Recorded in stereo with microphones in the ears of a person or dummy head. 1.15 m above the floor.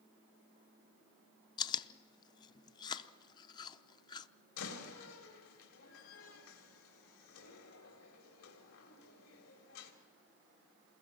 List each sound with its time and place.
1.6 s chewing: 20° left (ahead or behind), 0.5 m
4.6 s a door slam: 85° left, 3 m